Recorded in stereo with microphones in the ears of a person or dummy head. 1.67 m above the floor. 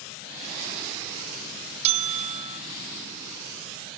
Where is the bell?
35° right (ahead or behind), 0.6 m.